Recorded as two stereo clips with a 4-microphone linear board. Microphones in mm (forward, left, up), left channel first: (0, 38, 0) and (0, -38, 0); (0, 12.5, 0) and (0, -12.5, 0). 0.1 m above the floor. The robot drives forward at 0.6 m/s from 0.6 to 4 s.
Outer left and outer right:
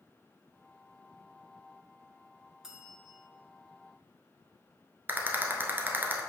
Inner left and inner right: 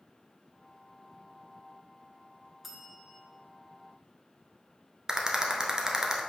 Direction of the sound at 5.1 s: 25° right (ahead or behind).